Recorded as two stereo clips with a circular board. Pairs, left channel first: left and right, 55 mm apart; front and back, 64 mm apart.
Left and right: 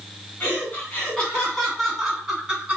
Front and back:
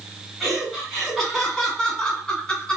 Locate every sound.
0.4 s laughter: 95° left, 1.8 m; by 2.8 s 45° right, 1.7 m